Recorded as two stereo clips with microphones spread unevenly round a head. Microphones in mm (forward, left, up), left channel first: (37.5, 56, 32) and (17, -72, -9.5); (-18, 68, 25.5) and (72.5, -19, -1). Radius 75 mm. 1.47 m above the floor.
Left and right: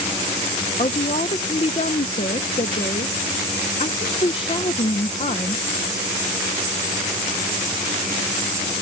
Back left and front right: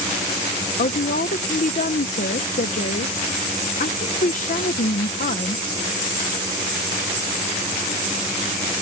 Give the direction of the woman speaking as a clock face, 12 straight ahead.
8 o'clock.